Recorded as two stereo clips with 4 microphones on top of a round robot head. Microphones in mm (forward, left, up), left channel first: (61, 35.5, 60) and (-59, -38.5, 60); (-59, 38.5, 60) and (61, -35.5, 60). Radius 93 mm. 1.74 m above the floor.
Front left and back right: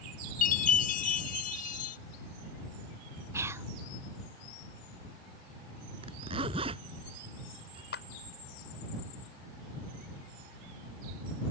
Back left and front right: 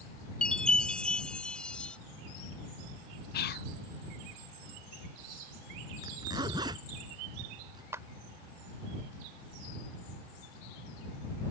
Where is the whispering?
140° left.